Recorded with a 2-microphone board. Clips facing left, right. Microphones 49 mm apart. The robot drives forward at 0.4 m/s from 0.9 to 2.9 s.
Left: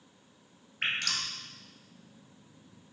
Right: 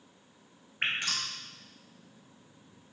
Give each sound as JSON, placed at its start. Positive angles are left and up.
{"t": 0.8, "sound": "dripping", "side_deg": -15, "distance_m": 2.0}